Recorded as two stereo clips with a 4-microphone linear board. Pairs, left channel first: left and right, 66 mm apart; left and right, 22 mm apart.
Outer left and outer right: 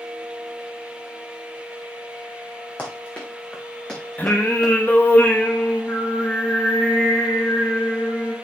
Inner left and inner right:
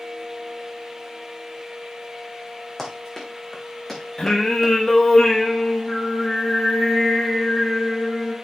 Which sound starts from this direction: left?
Singing, at 4.2 s.